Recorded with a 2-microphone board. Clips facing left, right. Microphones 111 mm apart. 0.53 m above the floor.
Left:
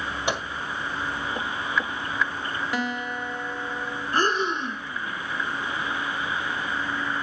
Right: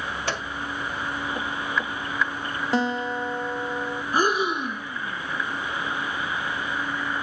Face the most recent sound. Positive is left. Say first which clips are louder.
# right 1 dB
turn(degrees=-10)  # may be behind; listen again after turning